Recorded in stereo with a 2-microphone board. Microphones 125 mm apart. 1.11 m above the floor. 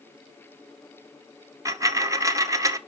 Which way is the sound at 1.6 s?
25° right (ahead or behind).